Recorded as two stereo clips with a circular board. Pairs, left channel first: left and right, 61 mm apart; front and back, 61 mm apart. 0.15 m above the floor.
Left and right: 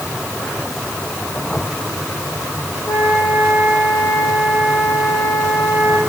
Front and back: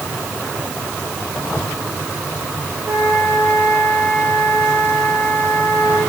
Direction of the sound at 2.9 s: 115° left.